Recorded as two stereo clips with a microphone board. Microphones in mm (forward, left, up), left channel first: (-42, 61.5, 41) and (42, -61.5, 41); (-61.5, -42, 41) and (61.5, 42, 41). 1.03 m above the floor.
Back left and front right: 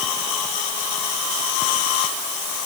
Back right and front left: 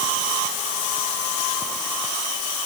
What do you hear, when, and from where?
Only background noise.